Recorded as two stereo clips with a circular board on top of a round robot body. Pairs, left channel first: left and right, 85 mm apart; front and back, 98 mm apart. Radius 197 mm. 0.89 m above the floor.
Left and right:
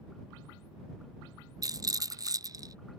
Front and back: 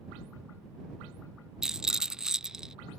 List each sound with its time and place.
1.6 s a rattle: 100° right